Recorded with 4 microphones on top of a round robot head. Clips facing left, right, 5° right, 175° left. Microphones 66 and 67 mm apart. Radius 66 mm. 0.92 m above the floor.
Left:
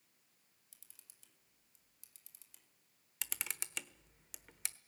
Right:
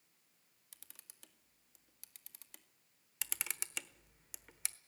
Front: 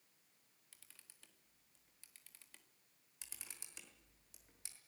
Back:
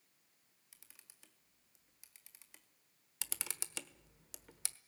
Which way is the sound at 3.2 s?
Straight behind.